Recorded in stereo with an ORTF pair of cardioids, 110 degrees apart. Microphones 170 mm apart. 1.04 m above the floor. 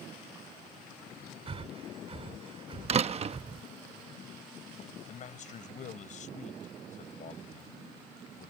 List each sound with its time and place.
1.5 s breathing: 35° right
2.9 s a door slam: 35° right
5.1 s a man speaking: 45° left